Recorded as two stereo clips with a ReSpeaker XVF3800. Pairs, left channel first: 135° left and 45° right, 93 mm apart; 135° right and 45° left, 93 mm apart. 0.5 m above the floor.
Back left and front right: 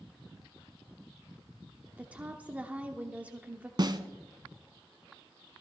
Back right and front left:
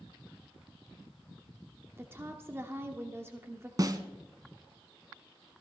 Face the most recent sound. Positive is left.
turn(degrees=-5)